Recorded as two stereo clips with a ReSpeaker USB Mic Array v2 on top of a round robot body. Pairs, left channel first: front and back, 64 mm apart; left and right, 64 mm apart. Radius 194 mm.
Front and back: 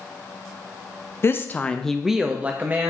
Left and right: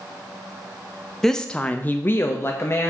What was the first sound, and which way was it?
A woman speaking, 10° left.